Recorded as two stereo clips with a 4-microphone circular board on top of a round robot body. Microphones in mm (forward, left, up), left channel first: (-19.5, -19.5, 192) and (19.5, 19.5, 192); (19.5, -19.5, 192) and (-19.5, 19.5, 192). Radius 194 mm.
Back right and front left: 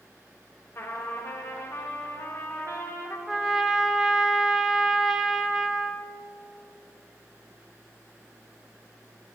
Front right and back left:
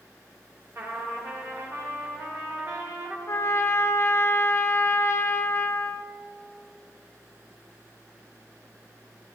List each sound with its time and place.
0.8 s a trumpet: straight behind, 1.7 m
3.3 s a trumpet: 35° right, 1.0 m